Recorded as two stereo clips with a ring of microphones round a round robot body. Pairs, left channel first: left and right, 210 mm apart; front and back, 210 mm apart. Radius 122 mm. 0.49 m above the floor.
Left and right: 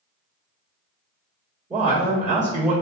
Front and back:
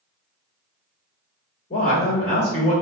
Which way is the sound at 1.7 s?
45° right.